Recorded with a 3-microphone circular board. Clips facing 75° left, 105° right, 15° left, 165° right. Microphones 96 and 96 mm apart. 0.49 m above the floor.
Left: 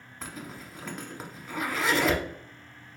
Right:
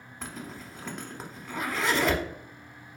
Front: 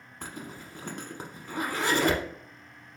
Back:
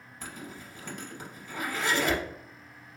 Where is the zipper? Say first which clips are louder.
Right 1 dB, front 2 dB; 15° right, 0.8 m.